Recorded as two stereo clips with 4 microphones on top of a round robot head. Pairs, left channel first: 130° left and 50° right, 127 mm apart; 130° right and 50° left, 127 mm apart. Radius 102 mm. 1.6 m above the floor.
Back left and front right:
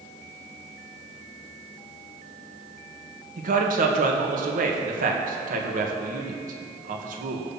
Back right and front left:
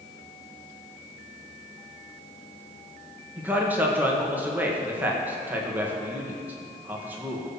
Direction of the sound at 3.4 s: 30° right.